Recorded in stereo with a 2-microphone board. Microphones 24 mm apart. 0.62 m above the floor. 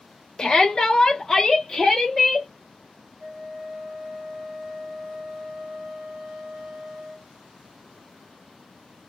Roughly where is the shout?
Left.